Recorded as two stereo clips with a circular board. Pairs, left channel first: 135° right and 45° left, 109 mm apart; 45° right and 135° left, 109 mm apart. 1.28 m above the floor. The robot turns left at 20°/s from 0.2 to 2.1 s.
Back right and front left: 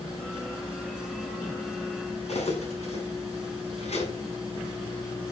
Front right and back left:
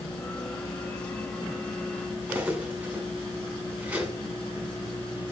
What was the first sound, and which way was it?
Cutlery clinking, 150° right.